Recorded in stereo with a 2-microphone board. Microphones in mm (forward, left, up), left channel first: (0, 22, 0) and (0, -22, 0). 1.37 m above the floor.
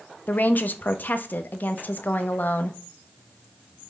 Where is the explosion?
I don't hear an explosion.